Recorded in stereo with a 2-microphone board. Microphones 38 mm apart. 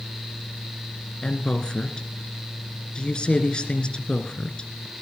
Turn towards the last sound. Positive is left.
turn(degrees=25)  # may be behind; listen again after turning